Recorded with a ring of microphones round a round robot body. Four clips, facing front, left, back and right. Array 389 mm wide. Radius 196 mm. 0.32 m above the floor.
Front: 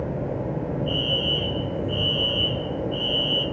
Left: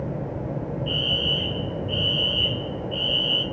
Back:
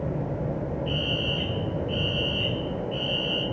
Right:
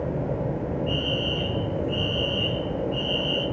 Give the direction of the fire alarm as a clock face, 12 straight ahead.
7 o'clock.